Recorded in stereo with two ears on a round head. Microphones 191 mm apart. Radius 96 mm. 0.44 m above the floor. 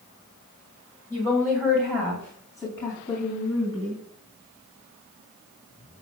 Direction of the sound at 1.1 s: 10° right (ahead or behind).